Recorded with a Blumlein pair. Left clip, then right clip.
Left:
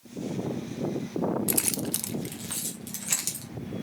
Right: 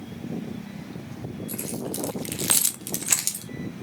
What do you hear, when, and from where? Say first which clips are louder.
1.5 s keys jangling: left 3 dB; 50° left, 0.9 m; by 3.5 s 80° right, 1.4 m